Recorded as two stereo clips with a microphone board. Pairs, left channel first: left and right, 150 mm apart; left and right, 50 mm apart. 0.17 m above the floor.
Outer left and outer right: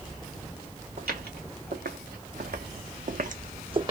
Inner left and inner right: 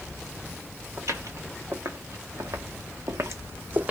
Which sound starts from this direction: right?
Footsteps, at 1.0 s.